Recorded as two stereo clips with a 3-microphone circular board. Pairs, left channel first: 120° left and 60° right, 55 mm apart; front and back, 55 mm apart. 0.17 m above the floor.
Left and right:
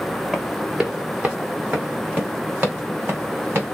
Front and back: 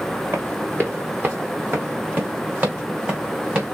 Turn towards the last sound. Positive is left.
turn(degrees=-110)